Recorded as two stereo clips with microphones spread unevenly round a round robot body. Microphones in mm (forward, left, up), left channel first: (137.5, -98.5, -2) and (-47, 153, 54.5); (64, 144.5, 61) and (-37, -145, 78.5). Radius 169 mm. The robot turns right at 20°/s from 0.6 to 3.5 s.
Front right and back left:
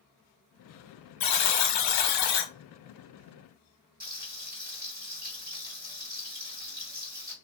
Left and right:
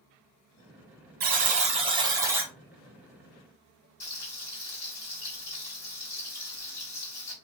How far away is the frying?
About 1.9 m.